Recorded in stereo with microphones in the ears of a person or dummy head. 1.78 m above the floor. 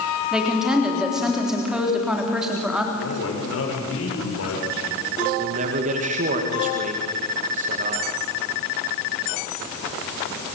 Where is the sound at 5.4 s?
45° right (ahead or behind), 2.5 m.